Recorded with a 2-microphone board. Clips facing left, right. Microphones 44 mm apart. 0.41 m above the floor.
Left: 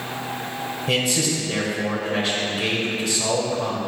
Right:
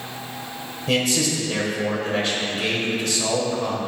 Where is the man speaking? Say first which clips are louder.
Right 1 dB; 5° left (ahead or behind), 1.9 m.